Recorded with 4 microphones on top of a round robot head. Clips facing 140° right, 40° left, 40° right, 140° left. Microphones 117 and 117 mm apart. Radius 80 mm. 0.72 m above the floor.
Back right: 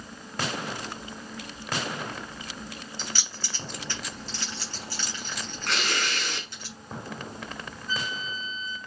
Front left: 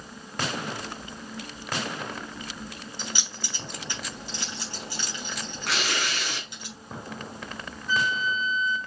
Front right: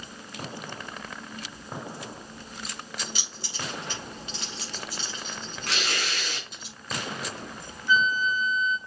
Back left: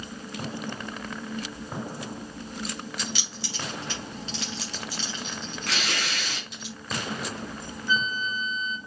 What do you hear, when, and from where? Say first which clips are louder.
3.0 s keys jangling: front left 3 dB, back left 3 dB; 115° left, 4 m
5.7 s tearing paper: even, even; 125° left, 3.5 m
7.9 s a flute: front left 8 dB, front right 4 dB; 70° left, 1.9 m